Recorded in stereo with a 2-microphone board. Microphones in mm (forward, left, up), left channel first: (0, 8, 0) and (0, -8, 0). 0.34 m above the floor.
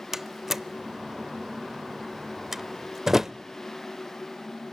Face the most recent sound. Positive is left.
turn(degrees=-25)  # may be behind; listen again after turning